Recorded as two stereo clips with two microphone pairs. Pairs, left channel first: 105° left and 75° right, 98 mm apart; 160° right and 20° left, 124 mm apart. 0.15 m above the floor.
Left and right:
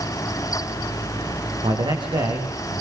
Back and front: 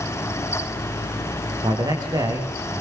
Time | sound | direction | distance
1.6 | a man speaking | 35° right | 10 m